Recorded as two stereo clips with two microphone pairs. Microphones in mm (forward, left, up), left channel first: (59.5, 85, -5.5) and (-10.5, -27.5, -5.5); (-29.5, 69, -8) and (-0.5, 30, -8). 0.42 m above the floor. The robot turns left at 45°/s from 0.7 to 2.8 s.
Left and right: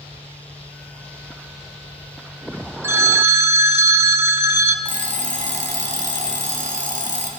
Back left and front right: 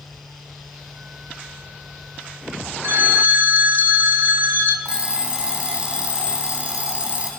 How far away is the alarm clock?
About 1.4 m.